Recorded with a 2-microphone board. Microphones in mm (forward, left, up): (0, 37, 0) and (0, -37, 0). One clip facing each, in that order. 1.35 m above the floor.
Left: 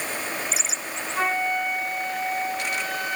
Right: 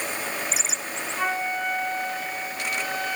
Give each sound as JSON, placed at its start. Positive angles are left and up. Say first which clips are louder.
{"t": 1.1, "sound": "a flute", "louder": "left 3 dB", "side_deg": 65, "distance_m": 8.5}